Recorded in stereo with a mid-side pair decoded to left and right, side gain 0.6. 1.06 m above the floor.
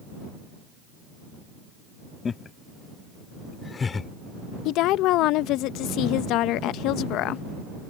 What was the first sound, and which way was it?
Laughter, 30° left.